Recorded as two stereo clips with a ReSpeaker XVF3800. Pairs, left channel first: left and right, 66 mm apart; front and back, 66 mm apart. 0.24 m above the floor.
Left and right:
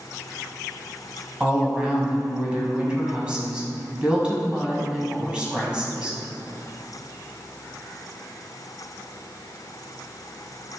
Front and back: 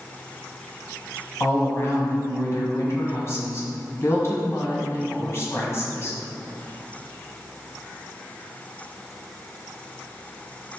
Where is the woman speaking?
20° right, 1.8 m.